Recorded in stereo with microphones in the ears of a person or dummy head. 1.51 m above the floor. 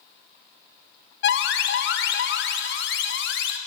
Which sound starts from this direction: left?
An alarm, at 1.2 s.